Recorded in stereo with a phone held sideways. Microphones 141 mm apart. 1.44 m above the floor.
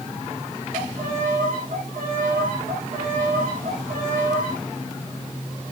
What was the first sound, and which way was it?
A violin, 80° right.